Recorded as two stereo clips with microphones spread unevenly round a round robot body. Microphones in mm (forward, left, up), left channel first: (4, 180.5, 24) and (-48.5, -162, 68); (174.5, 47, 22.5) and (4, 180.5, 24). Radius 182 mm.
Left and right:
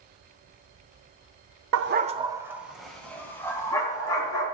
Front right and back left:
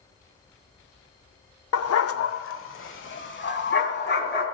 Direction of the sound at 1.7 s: 50° right.